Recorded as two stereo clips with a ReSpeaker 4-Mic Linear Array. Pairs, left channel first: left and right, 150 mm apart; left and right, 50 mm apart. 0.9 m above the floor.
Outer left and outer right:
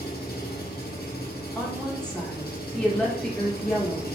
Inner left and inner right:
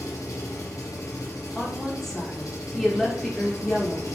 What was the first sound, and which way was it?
An engine running, 75° left (ahead or behind).